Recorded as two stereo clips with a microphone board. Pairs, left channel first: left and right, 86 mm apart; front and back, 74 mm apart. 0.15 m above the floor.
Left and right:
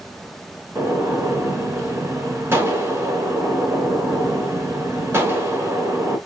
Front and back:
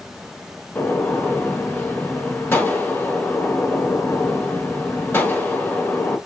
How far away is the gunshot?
About 1.1 m.